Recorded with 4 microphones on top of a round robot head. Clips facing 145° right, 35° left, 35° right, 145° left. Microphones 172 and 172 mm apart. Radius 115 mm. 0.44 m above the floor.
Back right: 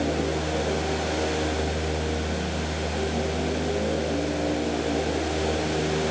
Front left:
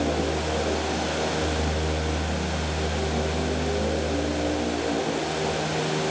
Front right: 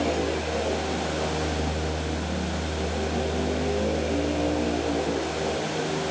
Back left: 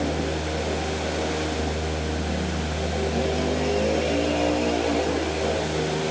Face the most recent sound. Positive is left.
No sound to turn to.